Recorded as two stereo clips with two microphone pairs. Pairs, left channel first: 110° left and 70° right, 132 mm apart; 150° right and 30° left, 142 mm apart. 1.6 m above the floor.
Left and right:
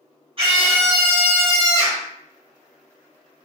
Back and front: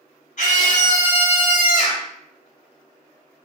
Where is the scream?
115° right, 1.0 m.